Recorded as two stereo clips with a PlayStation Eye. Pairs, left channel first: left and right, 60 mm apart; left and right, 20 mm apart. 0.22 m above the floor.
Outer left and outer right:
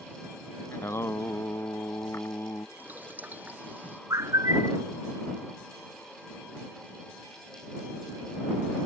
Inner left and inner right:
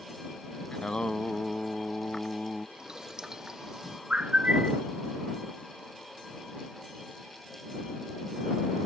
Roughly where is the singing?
Left.